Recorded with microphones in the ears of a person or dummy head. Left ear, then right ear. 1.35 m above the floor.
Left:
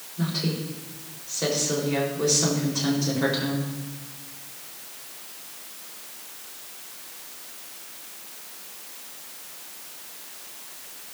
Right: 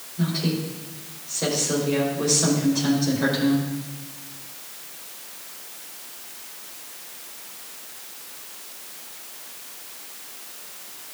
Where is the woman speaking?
10° left (ahead or behind), 4 m.